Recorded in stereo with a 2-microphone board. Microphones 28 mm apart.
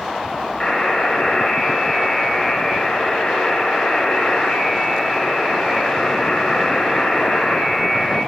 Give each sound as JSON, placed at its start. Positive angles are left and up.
{"t": 0.6, "sound": "a buzzer", "side_deg": 25, "distance_m": 7.0}